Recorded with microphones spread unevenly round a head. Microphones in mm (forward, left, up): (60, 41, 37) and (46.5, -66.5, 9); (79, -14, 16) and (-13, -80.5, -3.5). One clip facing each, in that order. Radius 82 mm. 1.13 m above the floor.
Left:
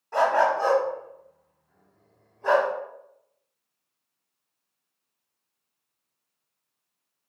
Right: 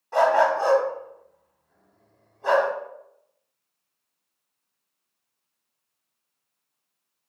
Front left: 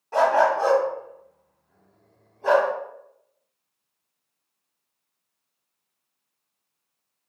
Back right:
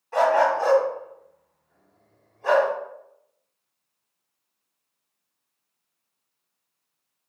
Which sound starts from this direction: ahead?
A dog barking, at 0.1 s.